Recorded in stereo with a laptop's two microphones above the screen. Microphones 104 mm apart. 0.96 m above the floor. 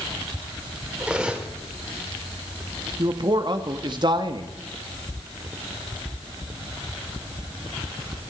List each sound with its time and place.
1.0 s cutlery clinking: 10° right (ahead or behind), 1.4 m
3.0 s a man speaking: 45° right (ahead or behind), 1.6 m